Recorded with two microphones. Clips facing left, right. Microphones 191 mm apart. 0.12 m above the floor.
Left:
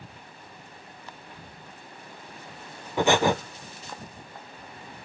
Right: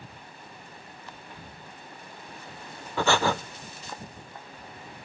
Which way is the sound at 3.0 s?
15° left (ahead or behind).